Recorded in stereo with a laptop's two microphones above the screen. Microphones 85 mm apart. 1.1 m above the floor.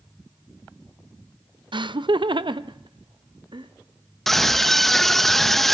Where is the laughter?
70° right (ahead or behind), 0.5 m; by 3.7 s 75° right (ahead or behind), 1.6 m.